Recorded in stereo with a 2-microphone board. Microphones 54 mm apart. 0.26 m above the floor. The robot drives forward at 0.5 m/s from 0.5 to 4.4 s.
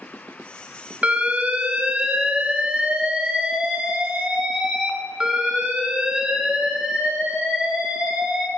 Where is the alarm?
25° right (ahead or behind), 1.9 m; by 8.5 s 15° right (ahead or behind), 3 m.